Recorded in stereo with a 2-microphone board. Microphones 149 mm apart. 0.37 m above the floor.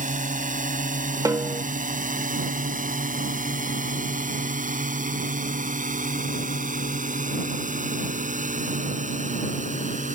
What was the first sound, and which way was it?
A drone, 60° right (ahead or behind).